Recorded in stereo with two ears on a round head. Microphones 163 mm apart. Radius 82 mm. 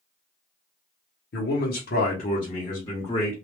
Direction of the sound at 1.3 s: 65° left (ahead or behind).